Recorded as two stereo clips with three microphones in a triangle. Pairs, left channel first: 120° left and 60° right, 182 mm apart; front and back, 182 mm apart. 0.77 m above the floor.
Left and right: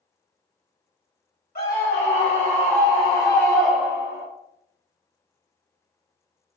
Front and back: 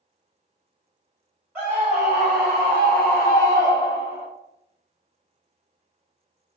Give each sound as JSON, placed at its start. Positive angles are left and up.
{"t": 1.6, "sound": "a scream", "azimuth_deg": 100, "distance_m": 1.9}